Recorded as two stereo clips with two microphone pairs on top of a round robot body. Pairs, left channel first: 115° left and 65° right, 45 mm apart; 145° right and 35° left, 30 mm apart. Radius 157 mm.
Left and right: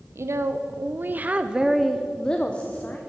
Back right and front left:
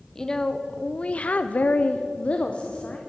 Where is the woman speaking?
70° right, 1.0 m; by 3.0 s 165° left, 1.2 m.